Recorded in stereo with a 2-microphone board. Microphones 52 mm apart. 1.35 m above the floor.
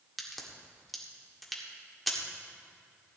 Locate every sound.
0.2 s a crack: centre (ahead or behind), 1.7 m